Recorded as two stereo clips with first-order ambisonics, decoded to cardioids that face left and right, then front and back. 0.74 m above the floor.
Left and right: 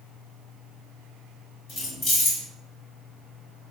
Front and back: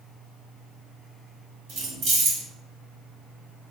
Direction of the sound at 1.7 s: 145° left.